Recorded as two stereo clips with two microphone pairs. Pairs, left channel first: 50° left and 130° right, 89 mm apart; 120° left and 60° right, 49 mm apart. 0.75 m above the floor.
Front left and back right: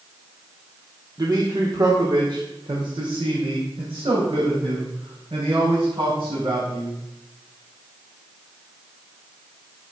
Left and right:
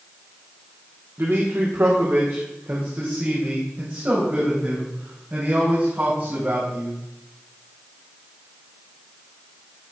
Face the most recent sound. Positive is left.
turn(degrees=-115)